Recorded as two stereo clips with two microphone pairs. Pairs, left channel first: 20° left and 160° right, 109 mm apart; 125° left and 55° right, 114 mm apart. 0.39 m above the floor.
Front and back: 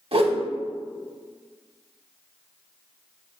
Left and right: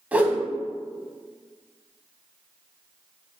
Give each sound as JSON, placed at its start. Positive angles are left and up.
{"t": 0.1, "sound": "a whoosh", "azimuth_deg": -135, "distance_m": 0.5}